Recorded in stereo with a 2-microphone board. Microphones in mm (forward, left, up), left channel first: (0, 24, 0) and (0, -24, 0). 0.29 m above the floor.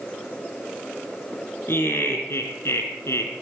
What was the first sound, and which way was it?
Laughter, 55° left (ahead or behind).